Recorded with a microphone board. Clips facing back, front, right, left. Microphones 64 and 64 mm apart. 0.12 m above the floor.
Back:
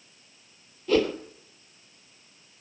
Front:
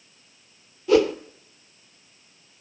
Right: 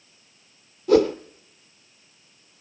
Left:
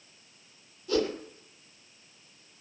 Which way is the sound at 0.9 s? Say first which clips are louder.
Front 5 dB, right 11 dB; 80° right.